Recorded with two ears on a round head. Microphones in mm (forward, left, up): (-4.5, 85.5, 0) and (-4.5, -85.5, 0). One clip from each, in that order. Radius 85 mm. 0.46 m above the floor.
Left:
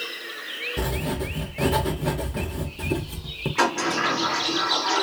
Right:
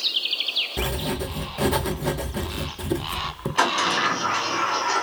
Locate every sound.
0.8 s writing: 15° right (ahead or behind), 0.5 m
3.6 s a sliding door: 20° right (ahead or behind), 1.6 m